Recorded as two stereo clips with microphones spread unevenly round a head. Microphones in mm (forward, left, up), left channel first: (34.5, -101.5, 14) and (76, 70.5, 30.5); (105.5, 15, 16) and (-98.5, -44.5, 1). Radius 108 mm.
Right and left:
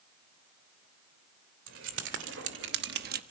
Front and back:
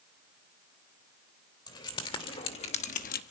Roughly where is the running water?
I don't hear running water.